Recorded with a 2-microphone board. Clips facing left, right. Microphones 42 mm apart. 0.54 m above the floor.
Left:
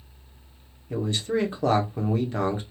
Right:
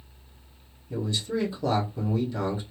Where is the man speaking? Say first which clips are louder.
Left 3 dB; 50° left (ahead or behind), 1.0 m.